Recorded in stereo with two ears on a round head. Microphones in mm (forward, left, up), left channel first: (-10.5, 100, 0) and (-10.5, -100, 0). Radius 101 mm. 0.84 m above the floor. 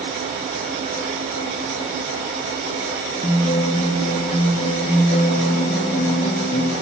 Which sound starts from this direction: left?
A guitar, at 3.2 s.